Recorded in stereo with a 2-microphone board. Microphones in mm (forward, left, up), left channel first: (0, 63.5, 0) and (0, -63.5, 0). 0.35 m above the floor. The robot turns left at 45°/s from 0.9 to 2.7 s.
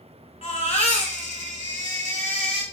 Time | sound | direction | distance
0.4 | a baby crying | 125° left | 1.4 m